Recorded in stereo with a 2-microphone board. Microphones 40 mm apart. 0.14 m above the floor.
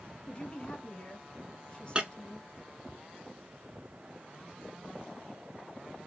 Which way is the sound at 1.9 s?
25° right (ahead or behind).